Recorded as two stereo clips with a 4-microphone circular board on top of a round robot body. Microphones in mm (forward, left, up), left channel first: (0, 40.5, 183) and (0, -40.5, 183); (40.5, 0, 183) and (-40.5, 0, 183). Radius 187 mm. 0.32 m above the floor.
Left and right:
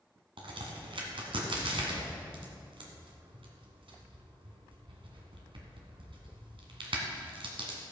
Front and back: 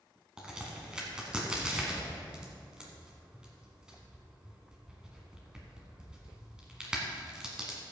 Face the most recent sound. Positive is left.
turn(degrees=-100)